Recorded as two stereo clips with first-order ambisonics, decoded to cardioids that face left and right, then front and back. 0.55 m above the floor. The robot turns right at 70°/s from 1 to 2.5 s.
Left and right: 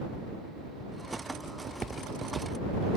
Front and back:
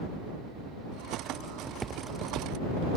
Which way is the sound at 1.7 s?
115° right.